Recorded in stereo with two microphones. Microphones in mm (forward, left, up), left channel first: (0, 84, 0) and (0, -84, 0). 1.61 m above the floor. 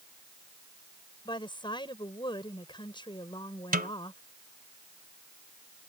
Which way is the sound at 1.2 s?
30° left (ahead or behind).